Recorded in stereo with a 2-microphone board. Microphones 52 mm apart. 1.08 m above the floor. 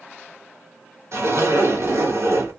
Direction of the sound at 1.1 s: 70° right (ahead or behind).